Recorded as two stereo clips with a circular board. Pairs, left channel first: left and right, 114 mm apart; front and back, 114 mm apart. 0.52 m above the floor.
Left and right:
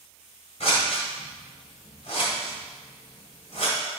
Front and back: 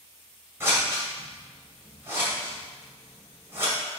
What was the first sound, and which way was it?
Scissors, 110° left.